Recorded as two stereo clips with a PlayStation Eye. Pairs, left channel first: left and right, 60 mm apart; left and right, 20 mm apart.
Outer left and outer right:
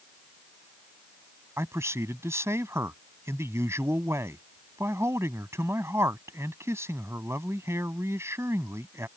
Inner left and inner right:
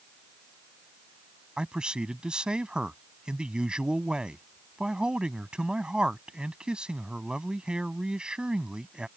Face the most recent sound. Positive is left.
turn(degrees=-50)  # may be behind; listen again after turning